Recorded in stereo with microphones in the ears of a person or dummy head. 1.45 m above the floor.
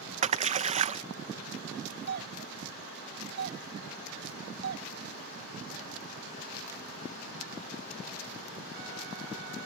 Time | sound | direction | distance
0.2 | a splash | 35° right (ahead or behind) | ?
2.1 | a doorbell | 55° right (ahead or behind) | ?